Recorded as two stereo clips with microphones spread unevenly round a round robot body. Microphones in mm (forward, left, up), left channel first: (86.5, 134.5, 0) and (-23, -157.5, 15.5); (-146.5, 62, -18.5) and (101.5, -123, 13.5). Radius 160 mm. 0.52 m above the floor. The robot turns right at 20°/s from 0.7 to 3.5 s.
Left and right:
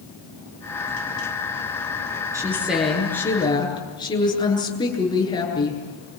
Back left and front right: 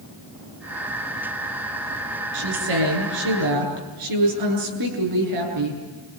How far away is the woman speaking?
About 8.5 m.